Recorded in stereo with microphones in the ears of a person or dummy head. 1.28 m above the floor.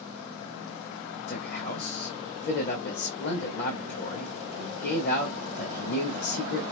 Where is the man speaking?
55° left (ahead or behind), 1.5 m.